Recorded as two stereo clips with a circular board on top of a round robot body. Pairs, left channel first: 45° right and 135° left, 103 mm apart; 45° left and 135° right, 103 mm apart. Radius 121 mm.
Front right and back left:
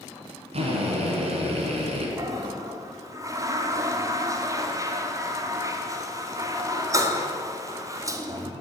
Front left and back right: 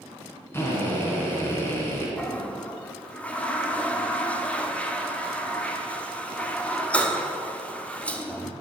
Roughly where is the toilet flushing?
Behind left.